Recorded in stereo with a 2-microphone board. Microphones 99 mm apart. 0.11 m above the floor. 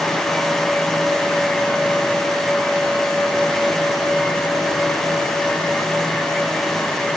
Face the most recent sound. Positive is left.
No sound to turn to.